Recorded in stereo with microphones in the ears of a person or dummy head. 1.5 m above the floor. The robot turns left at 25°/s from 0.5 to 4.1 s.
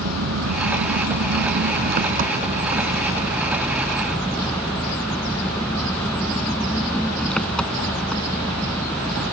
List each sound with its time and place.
0.0 s an engine running: 90° right; by 9.3 s straight behind